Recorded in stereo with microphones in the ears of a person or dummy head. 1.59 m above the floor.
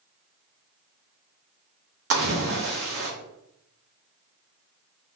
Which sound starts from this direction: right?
A splash, at 2.1 s.